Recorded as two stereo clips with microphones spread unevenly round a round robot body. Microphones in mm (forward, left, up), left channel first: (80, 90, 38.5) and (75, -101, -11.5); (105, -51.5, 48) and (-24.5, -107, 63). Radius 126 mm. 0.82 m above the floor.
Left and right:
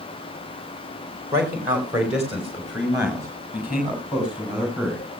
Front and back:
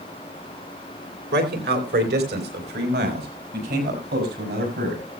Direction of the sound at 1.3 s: 170° right.